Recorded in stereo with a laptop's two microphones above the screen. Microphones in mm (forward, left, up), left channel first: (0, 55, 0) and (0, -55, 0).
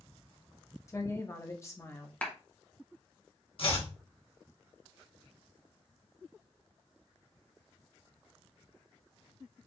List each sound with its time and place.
0.9 s a woman speaking: 25° left (ahead or behind), 0.7 m
2.2 s a clap: 15° left (ahead or behind), 0.7 m
3.6 s chopping: 55° left (ahead or behind), 1.0 m